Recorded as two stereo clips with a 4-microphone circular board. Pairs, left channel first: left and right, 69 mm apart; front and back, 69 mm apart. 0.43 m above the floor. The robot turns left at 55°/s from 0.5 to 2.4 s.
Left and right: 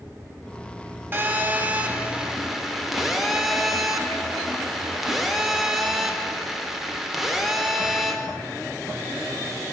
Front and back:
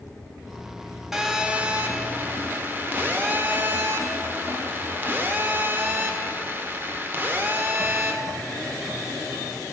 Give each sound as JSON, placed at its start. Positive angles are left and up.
{"t": 1.1, "sound": "a phone buzzing", "azimuth_deg": -100, "distance_m": 0.6}